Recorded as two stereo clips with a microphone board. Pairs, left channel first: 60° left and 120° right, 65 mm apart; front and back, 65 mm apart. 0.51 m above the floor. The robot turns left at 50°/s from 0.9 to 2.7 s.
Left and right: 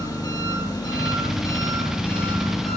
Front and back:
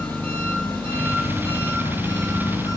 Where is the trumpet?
I don't hear a trumpet.